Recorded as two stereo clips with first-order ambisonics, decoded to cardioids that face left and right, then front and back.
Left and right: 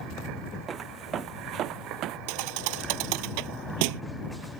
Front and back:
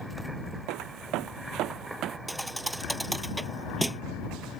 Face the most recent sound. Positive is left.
turn(degrees=-90)